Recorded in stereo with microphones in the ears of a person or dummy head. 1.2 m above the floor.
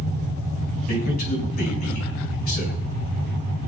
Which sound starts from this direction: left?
A man speaking, at 0.9 s.